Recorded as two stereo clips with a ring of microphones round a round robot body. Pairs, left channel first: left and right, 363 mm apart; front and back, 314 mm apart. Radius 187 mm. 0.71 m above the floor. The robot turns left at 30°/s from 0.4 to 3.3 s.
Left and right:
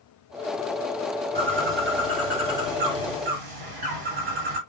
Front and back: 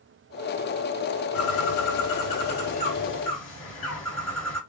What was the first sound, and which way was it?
A bird, 15° right.